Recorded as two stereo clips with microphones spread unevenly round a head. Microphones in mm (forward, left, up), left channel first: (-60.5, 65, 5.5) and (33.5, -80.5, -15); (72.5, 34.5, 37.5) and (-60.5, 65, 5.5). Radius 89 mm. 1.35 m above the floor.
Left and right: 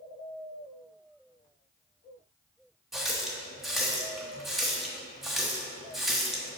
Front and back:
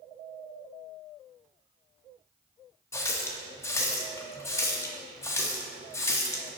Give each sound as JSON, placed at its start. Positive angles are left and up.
{"t": 2.9, "sound": "a running tap", "azimuth_deg": 40, "distance_m": 0.8}